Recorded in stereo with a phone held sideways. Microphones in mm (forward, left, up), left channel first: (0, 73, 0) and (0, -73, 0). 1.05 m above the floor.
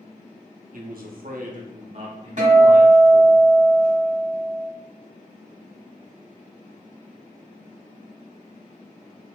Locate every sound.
0.7 s a man speaking: 65° right (ahead or behind), 0.6 m; by 3.4 s 20° right (ahead or behind), 1.3 m
2.4 s a guitar: 55° right (ahead or behind), 1.0 m